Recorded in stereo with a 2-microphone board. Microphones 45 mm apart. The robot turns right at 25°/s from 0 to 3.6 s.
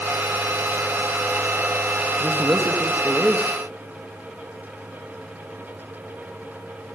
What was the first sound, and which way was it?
A man speaking, 60° right.